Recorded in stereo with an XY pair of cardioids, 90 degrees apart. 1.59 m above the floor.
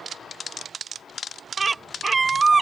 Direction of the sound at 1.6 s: 30° right.